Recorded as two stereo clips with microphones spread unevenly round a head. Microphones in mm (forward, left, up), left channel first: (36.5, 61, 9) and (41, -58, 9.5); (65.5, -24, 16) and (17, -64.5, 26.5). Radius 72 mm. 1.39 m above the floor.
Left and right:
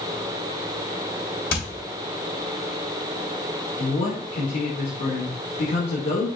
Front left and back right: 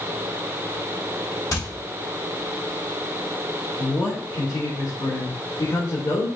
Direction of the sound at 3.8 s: 95° left.